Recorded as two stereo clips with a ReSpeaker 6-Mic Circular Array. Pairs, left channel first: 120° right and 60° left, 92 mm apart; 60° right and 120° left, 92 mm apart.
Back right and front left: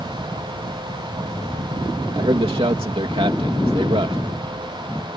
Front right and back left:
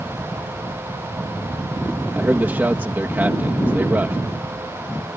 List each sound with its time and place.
2.1 s a man speaking: 50° left